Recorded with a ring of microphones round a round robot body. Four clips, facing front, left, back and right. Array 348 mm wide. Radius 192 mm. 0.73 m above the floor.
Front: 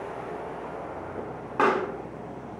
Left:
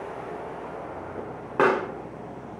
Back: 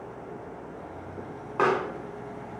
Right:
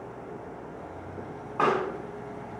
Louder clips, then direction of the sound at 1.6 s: Left 3 dB, front 1 dB; 85° left.